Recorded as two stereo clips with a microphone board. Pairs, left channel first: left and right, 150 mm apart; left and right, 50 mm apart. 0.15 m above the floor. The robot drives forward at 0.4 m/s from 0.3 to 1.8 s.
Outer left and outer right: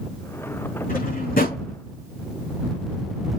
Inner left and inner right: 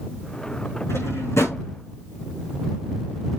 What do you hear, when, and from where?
0.9 s a drawer: 80° left, 4.5 m; by 1.6 s 75° left (ahead or behind), 5 m